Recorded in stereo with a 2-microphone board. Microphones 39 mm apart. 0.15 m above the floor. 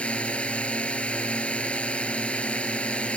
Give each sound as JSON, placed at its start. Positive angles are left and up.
{"t": 0.0, "sound": "a drone", "side_deg": 30}